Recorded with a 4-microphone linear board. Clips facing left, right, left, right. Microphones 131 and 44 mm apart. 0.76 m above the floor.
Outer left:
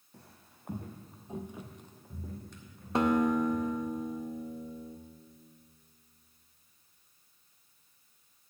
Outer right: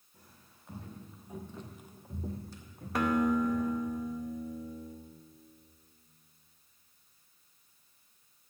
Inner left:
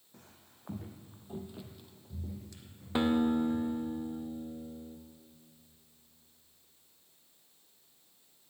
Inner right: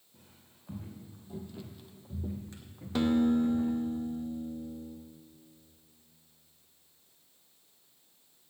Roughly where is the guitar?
Left.